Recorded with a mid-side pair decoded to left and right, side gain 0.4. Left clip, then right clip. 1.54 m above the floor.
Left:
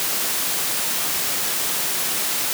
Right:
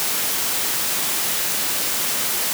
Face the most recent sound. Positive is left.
No sound to turn to.